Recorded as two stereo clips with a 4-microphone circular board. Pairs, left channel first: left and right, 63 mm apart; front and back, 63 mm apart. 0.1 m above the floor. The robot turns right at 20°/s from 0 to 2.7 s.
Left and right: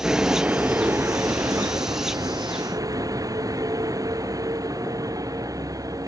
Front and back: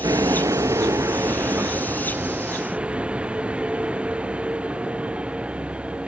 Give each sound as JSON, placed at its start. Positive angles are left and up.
{"t": 0.0, "sound": "a vehicle", "azimuth_deg": -165}